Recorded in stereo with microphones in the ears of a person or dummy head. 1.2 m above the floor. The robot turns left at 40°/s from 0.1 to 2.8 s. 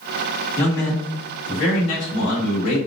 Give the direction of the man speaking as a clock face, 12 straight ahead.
6 o'clock.